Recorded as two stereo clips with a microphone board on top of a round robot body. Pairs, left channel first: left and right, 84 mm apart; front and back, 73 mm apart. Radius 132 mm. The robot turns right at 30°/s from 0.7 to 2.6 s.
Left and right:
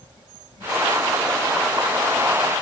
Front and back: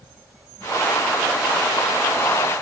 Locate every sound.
Only background noise.